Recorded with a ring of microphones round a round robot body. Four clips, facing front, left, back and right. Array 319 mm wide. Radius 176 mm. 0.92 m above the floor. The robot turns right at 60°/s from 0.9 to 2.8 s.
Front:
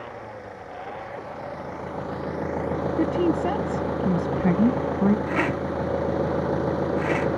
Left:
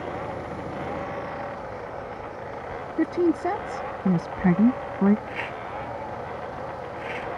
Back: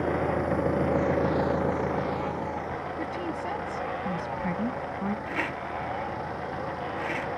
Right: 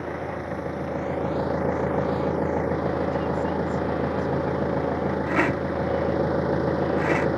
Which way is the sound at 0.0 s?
165° right.